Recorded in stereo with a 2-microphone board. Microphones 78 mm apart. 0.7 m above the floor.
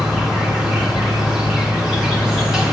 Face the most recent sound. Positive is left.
turn(degrees=-5)  # may be behind; listen again after turning